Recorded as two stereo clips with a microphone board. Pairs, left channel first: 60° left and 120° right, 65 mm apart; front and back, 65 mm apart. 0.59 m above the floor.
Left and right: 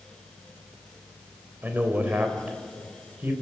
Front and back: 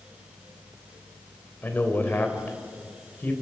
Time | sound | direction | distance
1.6 | a man speaking | 60° right | 3 m